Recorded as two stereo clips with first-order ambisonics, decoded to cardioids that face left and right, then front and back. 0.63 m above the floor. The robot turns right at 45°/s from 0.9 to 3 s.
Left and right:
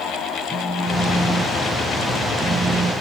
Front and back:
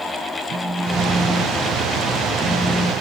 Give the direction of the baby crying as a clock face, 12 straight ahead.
No baby crying in this recording.